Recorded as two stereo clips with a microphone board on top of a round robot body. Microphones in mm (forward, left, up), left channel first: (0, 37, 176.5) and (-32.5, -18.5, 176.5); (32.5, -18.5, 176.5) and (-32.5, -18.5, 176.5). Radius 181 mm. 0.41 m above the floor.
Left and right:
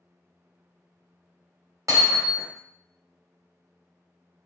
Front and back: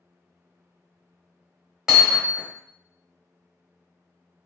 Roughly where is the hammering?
Right.